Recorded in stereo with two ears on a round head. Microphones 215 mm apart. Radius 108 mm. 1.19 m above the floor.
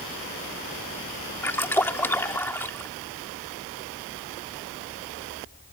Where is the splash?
10° left (ahead or behind).